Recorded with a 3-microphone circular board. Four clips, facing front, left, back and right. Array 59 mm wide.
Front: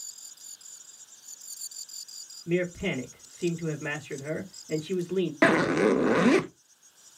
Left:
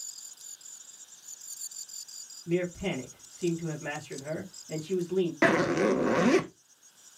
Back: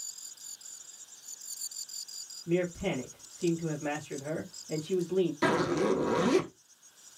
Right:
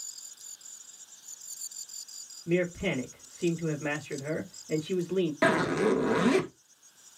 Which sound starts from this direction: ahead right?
A man speaking, at 2.5 s.